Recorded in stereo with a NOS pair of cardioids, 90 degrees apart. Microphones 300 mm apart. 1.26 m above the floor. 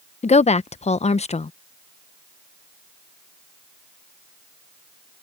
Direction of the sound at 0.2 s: 20° left.